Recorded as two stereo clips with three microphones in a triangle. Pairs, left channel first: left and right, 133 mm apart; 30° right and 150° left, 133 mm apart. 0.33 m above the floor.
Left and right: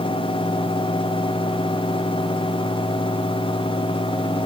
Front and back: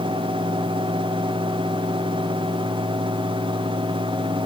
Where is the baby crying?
No baby crying in this recording.